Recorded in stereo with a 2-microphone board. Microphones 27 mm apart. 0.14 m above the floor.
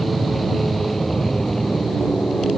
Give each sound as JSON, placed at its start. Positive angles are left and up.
{"t": 0.0, "sound": "an aircraft", "side_deg": 5}